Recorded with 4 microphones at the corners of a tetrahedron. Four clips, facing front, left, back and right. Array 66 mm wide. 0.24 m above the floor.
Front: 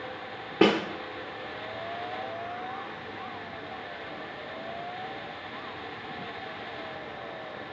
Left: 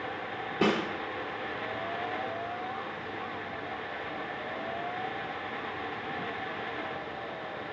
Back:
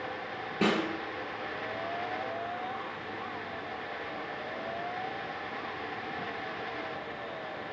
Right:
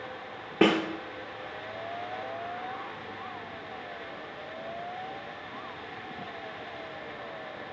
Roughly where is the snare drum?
Ahead right.